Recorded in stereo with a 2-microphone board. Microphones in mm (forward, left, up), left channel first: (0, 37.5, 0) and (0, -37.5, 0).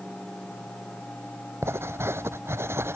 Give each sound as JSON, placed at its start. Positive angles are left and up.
{"t": 1.6, "sound": "writing", "side_deg": -35}